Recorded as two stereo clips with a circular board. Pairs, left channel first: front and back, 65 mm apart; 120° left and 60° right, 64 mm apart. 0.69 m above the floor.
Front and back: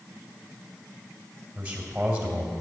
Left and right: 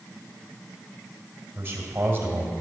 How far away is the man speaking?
About 2.5 m.